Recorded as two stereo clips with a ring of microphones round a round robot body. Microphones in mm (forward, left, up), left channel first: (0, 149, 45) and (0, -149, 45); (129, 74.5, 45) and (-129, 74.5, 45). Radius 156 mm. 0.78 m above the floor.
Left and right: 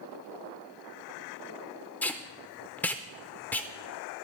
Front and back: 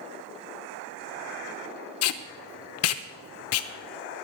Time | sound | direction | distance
2.0 | tape being pulled | 5° left | 0.5 m